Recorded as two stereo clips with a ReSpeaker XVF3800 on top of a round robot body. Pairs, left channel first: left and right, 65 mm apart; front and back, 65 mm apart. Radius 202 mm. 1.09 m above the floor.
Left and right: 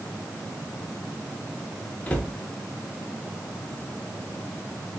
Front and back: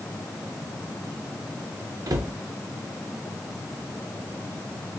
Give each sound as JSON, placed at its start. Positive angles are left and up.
{"t": 2.1, "sound": "a cupboard door", "azimuth_deg": 155, "distance_m": 0.8}